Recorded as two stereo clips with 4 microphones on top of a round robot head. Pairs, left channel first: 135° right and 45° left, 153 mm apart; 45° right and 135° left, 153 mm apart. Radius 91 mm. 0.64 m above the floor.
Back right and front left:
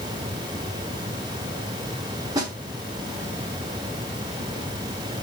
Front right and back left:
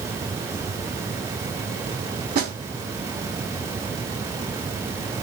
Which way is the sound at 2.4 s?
110° left.